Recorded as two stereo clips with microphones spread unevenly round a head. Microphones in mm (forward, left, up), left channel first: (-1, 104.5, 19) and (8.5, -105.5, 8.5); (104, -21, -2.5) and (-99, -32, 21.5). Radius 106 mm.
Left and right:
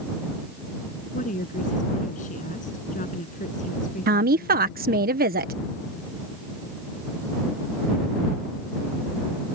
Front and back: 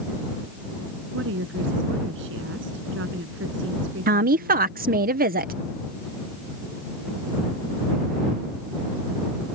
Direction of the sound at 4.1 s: 130° right.